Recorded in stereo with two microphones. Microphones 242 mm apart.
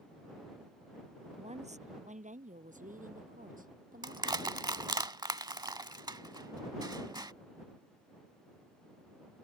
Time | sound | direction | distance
1.4 | a woman speaking | 25° right (ahead or behind) | ?
4.0 | crushing | 15° right (ahead or behind) | ?